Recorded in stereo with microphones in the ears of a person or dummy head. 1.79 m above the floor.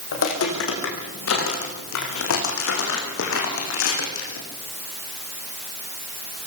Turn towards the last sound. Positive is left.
turn(degrees=75)  # may be behind; listen again after turning